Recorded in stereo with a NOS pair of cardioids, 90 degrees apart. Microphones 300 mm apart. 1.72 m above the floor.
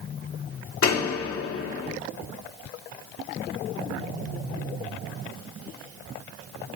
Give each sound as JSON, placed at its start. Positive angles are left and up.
{"t": 0.8, "sound": "a door slam", "azimuth_deg": 50, "distance_m": 1.8}